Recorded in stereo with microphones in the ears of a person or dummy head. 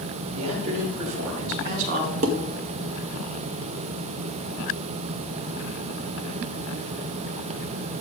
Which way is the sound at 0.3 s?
85° right.